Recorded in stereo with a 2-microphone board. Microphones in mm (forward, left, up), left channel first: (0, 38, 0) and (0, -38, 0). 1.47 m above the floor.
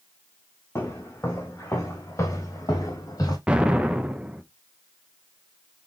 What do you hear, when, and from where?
0.8 s footsteps: 25° left (ahead or behind), 2.5 m; by 3.4 s 50° left (ahead or behind), 2.5 m
3.5 s an explosion: 10° right (ahead or behind), 0.6 m